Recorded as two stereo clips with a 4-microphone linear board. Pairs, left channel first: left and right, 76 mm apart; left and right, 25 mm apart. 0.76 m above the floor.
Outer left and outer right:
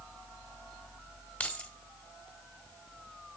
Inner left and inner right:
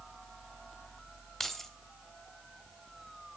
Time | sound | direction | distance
1.4 | keys jangling | 20° left (ahead or behind) | 1.2 m